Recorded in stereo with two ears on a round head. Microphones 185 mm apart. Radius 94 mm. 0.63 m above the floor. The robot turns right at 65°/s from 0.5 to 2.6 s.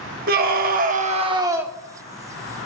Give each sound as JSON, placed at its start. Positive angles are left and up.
{"t": 0.3, "sound": "a scream", "azimuth_deg": -85, "distance_m": 1.1}